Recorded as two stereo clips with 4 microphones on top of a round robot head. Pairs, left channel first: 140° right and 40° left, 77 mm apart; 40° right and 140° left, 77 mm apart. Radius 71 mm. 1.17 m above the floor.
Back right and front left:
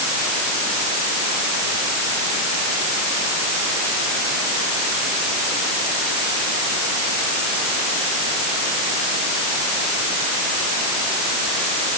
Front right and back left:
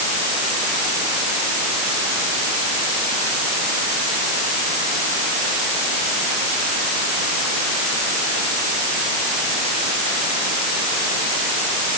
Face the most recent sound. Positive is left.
No sound to turn to.